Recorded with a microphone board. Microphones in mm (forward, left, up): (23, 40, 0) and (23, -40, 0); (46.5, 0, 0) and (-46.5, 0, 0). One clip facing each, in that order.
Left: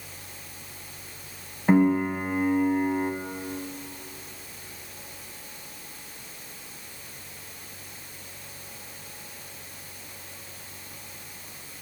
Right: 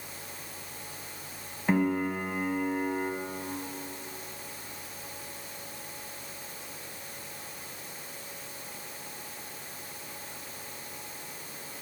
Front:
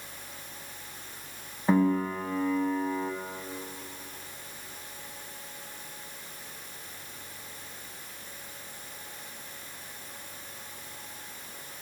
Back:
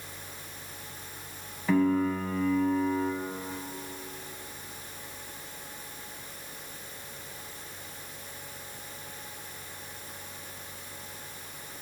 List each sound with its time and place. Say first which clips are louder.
1.7 s a piano: left 6 dB, even; 30° left, 0.9 m